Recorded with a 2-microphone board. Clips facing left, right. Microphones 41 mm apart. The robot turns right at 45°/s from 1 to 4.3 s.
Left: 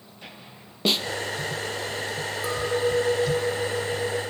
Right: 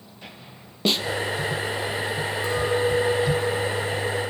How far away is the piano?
No piano in this recording.